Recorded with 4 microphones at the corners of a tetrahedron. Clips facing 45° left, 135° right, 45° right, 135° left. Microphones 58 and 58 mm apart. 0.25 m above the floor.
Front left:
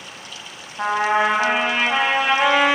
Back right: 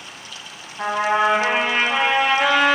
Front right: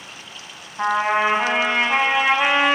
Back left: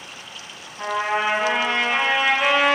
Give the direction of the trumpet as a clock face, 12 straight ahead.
12 o'clock.